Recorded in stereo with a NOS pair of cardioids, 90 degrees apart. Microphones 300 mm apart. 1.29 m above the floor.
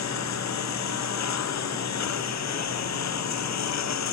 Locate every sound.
0.0 s a lawn mower: 60° left